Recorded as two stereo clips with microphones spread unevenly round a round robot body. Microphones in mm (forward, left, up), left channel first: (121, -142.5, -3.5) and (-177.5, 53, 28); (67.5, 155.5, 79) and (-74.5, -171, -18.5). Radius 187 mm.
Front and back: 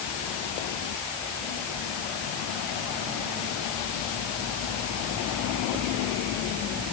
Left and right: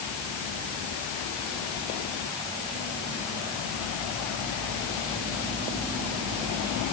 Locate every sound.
Only background noise.